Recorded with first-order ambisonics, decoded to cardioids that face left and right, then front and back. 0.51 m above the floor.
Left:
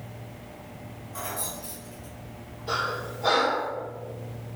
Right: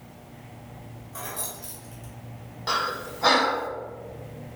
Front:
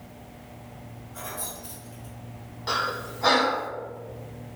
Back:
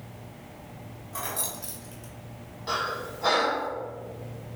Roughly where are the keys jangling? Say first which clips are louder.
Left 2 dB, back 3 dB; behind.